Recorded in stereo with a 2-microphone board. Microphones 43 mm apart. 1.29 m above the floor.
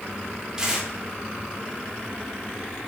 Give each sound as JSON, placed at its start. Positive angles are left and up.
{"t": 0.6, "sound": "tearing paper", "side_deg": -15, "distance_m": 4.5}